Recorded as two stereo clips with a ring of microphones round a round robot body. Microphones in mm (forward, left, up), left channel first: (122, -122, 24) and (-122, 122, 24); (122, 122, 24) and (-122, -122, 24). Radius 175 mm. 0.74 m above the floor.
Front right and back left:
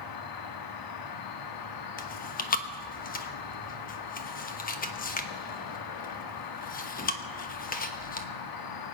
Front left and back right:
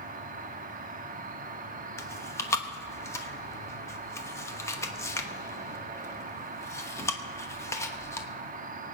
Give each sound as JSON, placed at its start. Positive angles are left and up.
{"t": 0.0, "sound": "an insect", "azimuth_deg": -70, "distance_m": 1.0}
{"t": 2.0, "sound": "chewing", "azimuth_deg": -30, "distance_m": 1.1}